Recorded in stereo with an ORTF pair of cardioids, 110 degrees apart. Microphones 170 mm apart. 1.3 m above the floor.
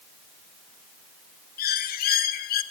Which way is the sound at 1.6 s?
60° left.